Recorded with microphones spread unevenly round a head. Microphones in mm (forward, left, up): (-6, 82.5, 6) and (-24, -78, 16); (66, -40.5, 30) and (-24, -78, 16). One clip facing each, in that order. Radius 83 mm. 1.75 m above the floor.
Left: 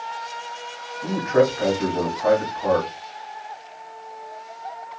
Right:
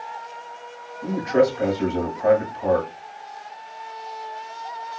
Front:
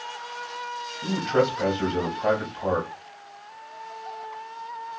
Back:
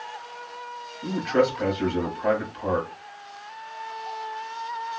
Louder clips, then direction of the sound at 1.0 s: Even, back 1 dB; 25° right.